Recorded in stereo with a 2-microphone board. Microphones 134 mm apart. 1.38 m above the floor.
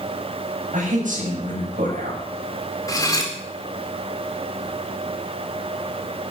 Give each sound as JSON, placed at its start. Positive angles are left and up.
{"t": 0.7, "sound": "a man speaking", "side_deg": -70, "distance_m": 7.0}
{"t": 2.9, "sound": "cutlery clinking", "side_deg": 25, "distance_m": 3.0}